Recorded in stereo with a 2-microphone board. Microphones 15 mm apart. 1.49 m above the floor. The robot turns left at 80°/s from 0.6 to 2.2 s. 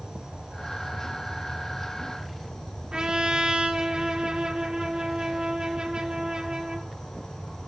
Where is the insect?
85° right, 7.5 m; by 7.7 s 145° left, 7.5 m.